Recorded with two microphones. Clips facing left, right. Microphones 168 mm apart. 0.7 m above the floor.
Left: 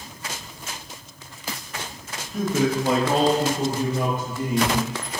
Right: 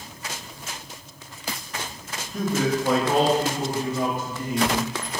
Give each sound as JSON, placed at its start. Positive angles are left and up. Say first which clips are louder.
{"t": 2.3, "sound": "a man speaking", "louder": "left 2 dB", "side_deg": 0, "distance_m": 0.7}